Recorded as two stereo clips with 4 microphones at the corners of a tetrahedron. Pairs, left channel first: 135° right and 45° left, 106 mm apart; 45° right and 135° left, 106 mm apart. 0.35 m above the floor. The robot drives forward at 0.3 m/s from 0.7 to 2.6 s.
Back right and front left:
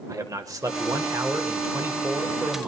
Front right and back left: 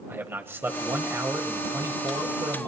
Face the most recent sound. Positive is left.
turn(degrees=110)